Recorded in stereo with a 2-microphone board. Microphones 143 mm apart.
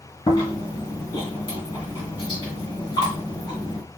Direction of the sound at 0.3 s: 35° left (ahead or behind).